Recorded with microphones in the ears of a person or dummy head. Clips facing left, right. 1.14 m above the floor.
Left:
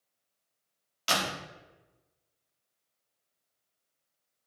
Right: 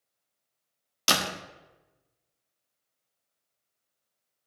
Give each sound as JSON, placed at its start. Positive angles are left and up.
{"t": 1.1, "sound": "a door slam", "side_deg": -70, "distance_m": 1.2}